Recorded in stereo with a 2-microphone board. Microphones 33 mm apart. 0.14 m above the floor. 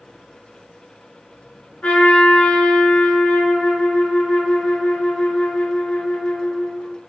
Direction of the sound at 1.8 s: 45° left (ahead or behind).